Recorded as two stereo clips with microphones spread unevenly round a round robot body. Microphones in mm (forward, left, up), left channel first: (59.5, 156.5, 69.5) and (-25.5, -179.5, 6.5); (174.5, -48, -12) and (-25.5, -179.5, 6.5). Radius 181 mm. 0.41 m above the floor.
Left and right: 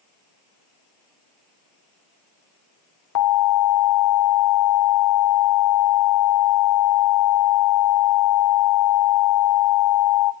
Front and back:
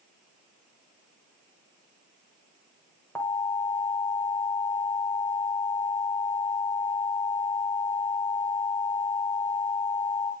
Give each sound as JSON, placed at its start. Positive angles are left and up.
{"t": 3.1, "sound": "an alarm", "azimuth_deg": 115, "distance_m": 0.8}